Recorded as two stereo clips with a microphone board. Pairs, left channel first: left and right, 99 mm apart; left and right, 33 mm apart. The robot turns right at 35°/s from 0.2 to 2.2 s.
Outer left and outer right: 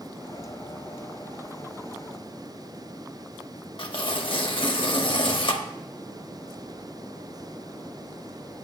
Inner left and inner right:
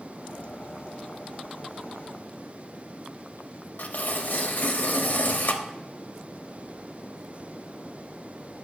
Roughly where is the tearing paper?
Left.